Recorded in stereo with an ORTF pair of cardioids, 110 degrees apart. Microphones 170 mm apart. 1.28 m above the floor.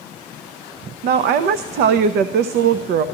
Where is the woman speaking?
65° right, 0.6 m.